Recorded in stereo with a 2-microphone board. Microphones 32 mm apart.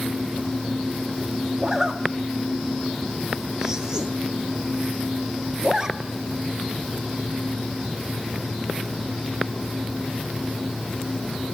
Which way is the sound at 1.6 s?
20° right (ahead or behind).